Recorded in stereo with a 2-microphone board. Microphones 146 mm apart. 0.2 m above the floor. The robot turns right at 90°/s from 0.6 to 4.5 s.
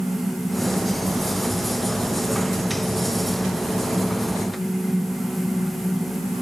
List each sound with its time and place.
Only background noise.